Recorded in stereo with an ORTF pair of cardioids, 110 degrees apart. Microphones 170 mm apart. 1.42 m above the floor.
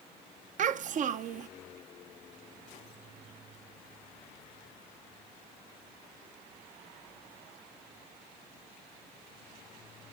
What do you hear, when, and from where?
0.6 s a child speaking: 50° right, 1.0 m